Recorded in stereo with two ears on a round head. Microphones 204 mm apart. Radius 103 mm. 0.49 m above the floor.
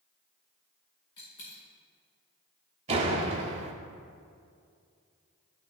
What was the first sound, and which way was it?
A dropped coin, 70° left (ahead or behind).